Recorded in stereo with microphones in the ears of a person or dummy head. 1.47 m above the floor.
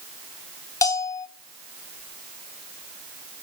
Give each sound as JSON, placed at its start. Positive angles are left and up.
{"t": 0.8, "sound": "a bell", "side_deg": 20, "distance_m": 0.7}